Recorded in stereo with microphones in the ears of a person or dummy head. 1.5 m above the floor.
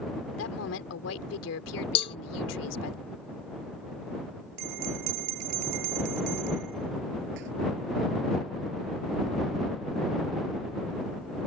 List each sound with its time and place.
0.4 s a woman speaking: 70° left (ahead or behind)
1.9 s a cowbell: 30° left (ahead or behind)
4.6 s a bell: 60° right (ahead or behind)